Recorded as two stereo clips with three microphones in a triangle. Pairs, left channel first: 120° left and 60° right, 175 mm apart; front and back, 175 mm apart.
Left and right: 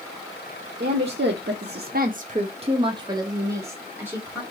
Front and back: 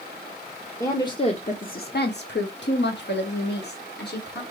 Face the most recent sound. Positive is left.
turn(degrees=20)